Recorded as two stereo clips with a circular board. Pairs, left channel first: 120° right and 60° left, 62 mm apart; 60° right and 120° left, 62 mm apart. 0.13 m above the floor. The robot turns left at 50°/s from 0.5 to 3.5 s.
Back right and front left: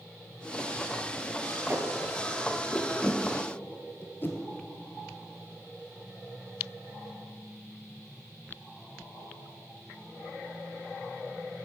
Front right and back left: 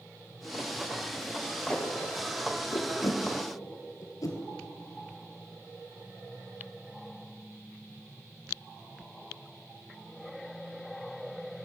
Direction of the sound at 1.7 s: 25° left.